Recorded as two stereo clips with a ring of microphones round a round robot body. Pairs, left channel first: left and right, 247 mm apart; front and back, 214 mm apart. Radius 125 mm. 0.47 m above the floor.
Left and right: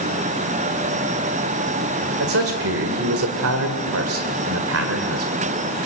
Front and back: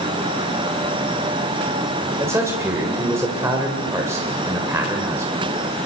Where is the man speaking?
105° right, 1.9 m.